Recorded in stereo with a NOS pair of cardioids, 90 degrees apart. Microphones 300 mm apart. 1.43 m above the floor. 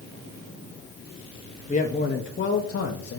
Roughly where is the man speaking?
Ahead left.